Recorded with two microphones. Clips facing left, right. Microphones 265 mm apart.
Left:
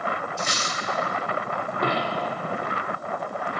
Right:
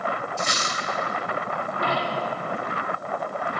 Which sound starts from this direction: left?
A dropped coin, at 1.8 s.